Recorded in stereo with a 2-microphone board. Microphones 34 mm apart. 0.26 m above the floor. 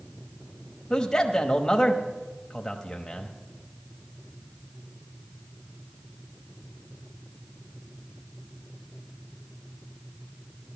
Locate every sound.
0.9 s a man speaking: 25° left (ahead or behind), 1.0 m